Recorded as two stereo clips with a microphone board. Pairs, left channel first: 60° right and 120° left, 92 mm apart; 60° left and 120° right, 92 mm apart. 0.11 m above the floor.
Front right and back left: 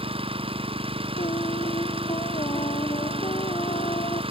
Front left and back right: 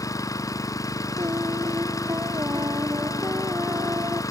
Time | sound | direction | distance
0.0 | an engine running | 115° left | ?
1.2 | singing | 65° right | ?